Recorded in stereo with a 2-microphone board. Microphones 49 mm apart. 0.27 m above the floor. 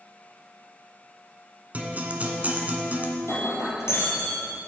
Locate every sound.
1.7 s a guitar: 35° right (ahead or behind), 1.1 m
3.2 s breaking glass: 75° left (ahead or behind), 3 m